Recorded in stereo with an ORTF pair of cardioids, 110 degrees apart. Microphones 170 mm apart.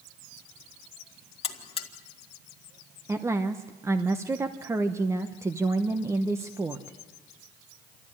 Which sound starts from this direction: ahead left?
A buzzer, at 1.4 s.